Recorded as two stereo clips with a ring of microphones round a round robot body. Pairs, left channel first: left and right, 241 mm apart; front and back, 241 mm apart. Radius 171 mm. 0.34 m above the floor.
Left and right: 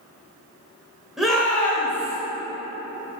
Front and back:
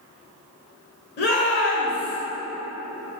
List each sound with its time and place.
1.2 s a shout: straight ahead, 1.0 m; by 2.2 s 15° left, 1.5 m